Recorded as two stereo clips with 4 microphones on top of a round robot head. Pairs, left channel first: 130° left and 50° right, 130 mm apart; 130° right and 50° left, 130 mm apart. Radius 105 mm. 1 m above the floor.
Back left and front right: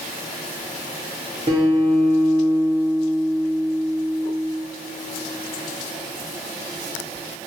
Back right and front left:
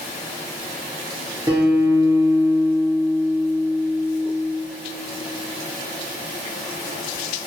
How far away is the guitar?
About 0.7 m.